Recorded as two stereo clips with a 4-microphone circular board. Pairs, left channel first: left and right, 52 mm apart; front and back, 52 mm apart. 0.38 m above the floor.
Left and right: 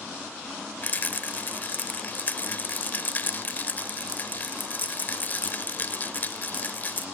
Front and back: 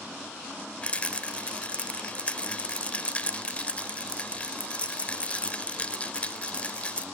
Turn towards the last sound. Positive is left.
turn(degrees=55)